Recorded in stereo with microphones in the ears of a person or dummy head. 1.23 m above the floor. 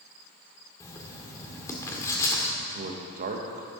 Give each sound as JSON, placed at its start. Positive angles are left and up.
{"t": 0.8, "sound": "writing", "side_deg": 15, "distance_m": 1.6}
{"t": 2.6, "sound": "a man speaking", "side_deg": -45, "distance_m": 1.3}